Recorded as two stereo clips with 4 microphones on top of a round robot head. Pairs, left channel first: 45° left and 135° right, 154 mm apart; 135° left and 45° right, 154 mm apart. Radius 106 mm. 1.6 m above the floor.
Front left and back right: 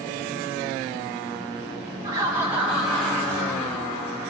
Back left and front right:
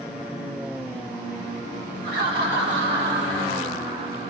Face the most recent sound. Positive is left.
turn(degrees=-15)